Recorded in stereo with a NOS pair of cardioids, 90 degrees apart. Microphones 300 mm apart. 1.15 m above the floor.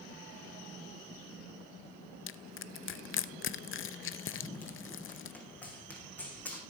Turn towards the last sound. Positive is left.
turn(degrees=5)